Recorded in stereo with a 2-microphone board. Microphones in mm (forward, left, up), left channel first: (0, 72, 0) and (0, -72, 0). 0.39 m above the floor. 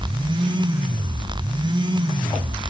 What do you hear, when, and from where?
Only background noise.